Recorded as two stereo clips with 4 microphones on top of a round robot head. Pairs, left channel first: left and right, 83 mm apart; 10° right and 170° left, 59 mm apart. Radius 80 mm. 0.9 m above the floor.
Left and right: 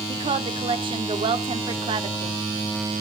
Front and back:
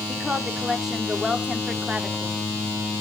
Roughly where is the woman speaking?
Right.